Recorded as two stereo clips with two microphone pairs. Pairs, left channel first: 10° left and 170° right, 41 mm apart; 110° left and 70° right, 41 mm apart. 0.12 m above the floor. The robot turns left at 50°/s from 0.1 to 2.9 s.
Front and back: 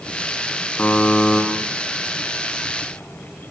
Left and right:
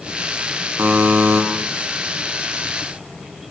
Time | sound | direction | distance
0.8 | a buzzer | 40° right | 8 m